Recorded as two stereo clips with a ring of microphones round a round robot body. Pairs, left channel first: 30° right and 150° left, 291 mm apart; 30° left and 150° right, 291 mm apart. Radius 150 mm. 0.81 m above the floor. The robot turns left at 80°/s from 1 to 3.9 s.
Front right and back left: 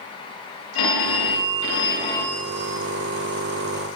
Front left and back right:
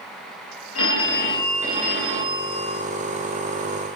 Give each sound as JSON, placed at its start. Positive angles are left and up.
{"t": 0.8, "sound": "a phone ringing", "azimuth_deg": -15, "distance_m": 1.9}